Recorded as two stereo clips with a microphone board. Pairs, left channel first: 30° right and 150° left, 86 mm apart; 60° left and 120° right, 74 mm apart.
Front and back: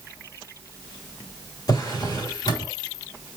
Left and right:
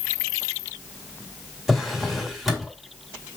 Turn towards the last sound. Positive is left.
turn(degrees=-35)